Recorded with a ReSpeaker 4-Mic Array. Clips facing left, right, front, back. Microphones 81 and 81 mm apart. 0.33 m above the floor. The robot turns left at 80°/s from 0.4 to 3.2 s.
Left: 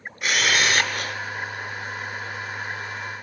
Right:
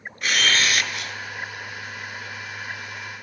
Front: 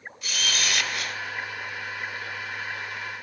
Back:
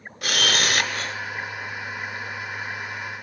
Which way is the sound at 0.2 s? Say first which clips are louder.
Left 1 dB, back 6 dB; 175° left.